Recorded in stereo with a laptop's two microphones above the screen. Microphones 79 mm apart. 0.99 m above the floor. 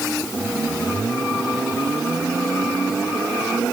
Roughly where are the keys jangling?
No keys jangling in this recording.